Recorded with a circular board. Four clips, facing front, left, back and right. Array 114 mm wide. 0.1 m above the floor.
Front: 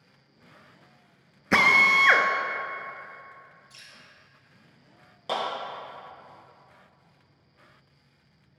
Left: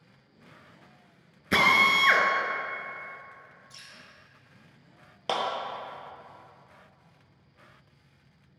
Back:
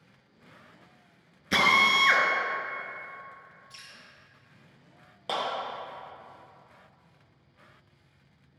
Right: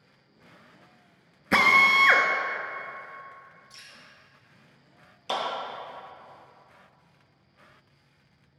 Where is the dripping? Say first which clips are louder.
Even, back 2 dB; 170° right, 1.8 m.